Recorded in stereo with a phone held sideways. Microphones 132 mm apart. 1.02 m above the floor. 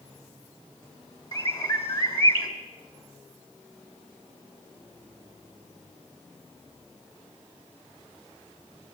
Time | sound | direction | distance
1.3 | a bird | 40° left (ahead or behind) | 2 m